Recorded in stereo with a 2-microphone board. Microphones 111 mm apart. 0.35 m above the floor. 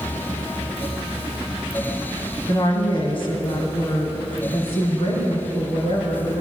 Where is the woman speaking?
40° left (ahead or behind), 2.5 m; by 6.4 s 65° left (ahead or behind), 5 m.